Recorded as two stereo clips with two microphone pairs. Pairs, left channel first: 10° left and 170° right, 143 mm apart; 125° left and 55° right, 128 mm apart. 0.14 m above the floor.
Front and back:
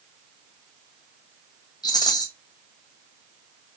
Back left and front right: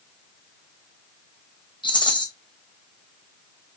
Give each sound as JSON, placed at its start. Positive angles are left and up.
{"t": 1.8, "sound": "a rattle", "azimuth_deg": 75, "distance_m": 1.0}